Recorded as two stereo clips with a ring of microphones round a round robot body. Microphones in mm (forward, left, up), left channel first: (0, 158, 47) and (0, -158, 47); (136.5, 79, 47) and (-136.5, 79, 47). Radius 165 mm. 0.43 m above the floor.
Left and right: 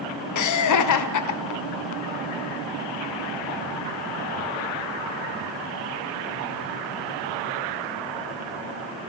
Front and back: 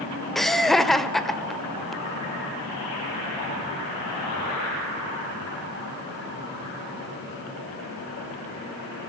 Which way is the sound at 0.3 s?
90° left.